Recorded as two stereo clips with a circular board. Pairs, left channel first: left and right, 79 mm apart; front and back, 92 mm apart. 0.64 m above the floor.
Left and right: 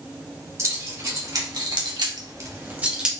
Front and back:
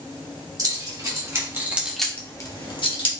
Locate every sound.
0.6 s keys jangling: 135° right, 3 m; by 3.1 s 10° right, 1.8 m